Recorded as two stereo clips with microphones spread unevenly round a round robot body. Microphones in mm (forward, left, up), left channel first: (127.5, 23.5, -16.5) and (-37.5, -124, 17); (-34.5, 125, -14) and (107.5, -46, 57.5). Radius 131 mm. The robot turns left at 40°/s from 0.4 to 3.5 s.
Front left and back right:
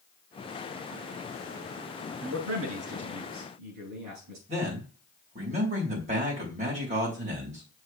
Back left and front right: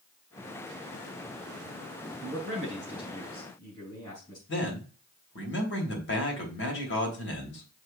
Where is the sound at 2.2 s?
105° right, 4.5 m; by 4.4 s 155° right, 4.5 m.